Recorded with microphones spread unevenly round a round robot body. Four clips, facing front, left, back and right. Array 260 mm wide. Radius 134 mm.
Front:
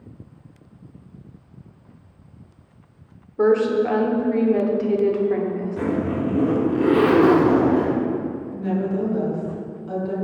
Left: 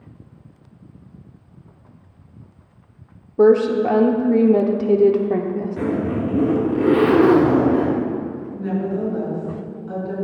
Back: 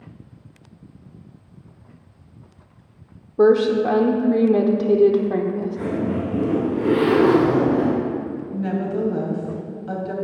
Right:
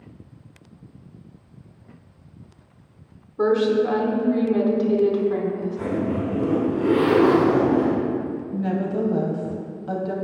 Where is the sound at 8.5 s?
110° right, 2.5 m.